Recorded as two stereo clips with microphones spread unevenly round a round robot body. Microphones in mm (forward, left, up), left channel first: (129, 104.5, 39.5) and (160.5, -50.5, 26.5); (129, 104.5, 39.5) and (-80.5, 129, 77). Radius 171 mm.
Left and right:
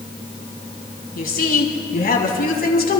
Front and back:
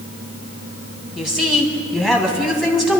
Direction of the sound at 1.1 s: 85° left.